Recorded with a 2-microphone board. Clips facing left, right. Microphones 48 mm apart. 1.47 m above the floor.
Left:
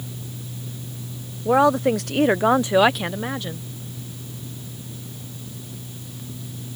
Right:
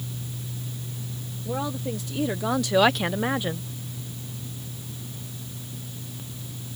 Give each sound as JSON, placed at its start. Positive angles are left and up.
{"t": 1.4, "sound": "a woman speaking", "side_deg": 85}